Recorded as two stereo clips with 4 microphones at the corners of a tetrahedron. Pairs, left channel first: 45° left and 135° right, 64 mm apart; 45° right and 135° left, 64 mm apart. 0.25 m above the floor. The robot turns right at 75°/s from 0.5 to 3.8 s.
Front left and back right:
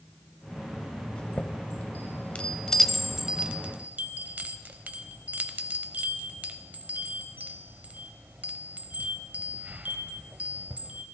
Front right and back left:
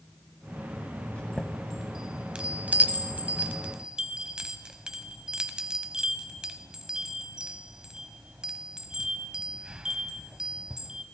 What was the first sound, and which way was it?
A chime, 5° right.